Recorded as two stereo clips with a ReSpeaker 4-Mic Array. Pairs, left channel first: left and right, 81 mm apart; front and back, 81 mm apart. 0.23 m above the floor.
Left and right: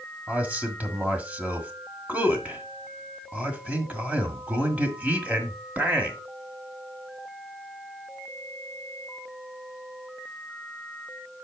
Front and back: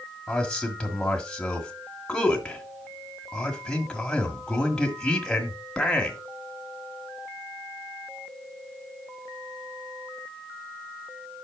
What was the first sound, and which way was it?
A man speaking, 60° right.